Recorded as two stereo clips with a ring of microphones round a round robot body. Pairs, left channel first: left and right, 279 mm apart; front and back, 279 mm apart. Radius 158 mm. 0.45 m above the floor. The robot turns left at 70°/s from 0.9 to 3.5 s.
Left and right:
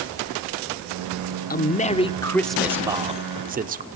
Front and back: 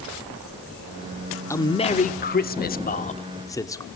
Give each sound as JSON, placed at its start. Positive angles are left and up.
{"t": 1.5, "sound": "a man speaking", "azimuth_deg": 70, "distance_m": 1.0}